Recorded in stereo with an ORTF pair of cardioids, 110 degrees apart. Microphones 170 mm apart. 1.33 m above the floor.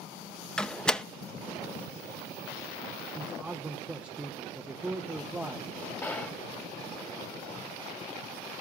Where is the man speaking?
10° right, 0.8 m.